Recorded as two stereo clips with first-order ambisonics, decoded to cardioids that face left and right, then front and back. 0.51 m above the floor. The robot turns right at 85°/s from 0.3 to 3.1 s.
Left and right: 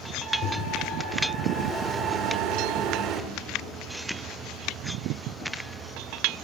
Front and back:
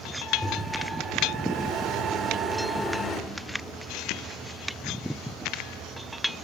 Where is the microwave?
80° left, 1.2 m; by 3.2 s 55° right, 1.2 m.